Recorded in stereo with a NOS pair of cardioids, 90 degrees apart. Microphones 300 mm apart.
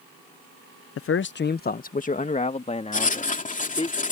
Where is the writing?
25° left.